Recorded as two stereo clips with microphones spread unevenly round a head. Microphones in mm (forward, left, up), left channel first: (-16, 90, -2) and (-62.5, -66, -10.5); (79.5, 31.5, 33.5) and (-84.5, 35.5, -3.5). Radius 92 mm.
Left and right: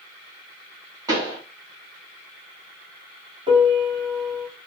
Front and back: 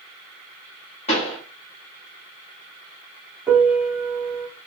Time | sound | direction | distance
1.1 | a pop | 35° right | 1.0 m
3.5 | a piano | 85° right | 1.0 m